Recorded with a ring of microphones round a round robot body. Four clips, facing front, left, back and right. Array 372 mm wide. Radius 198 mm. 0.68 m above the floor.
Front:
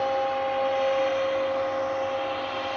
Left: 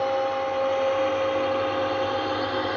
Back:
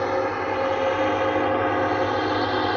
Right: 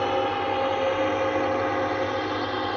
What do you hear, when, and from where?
0.0 s a drone: 145° right; by 2.8 s straight behind